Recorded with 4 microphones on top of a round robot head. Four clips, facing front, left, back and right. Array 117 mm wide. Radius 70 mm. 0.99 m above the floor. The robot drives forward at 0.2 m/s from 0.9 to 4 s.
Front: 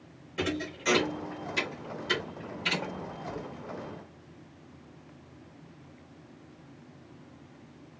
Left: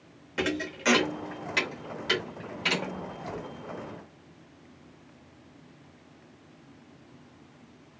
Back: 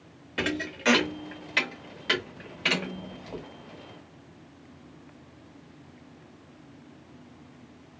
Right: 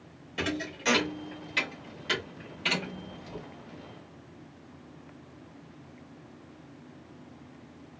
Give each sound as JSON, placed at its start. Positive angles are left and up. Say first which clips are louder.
{"t": 0.4, "sound": "a thud", "louder": "left 3 dB, back 2 dB", "azimuth_deg": 145, "distance_m": 0.7}